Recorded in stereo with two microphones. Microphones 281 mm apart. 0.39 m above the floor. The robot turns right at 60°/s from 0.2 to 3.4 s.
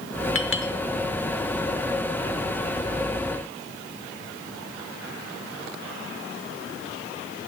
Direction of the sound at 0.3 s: 50° left (ahead or behind).